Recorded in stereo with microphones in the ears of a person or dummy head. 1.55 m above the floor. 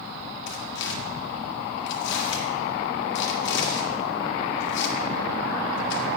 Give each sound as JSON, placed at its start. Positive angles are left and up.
{"t": 0.5, "sound": "tearing paper", "side_deg": 70, "distance_m": 1.6}